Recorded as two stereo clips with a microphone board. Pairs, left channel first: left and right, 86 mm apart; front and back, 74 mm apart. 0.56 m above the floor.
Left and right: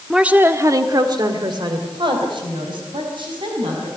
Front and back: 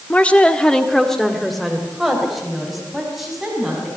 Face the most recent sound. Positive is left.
turn(degrees=-95)